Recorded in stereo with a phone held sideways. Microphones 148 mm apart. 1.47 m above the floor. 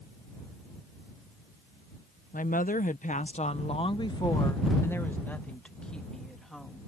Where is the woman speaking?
80° left; by 6.9 s centre (ahead or behind).